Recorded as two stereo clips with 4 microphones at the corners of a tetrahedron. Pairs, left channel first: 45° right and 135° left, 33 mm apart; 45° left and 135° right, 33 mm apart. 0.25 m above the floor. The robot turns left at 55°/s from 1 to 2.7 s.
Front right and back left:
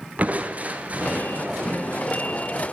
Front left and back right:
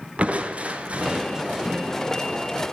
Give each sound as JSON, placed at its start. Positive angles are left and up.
{"t": 0.2, "sound": "crushing", "azimuth_deg": 175, "distance_m": 0.8}